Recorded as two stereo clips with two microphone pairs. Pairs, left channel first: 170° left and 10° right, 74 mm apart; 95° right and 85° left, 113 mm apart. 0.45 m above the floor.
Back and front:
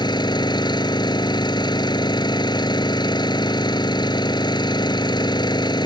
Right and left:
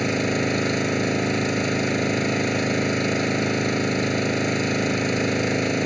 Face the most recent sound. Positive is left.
turn(degrees=175)